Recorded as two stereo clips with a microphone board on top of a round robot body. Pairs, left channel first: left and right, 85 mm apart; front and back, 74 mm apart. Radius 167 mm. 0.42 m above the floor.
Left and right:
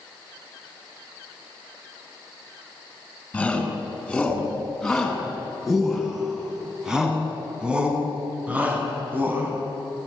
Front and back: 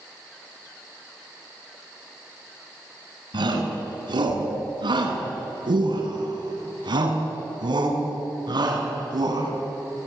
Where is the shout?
170° left, 7.5 m; by 9.5 s 155° right, 6.5 m.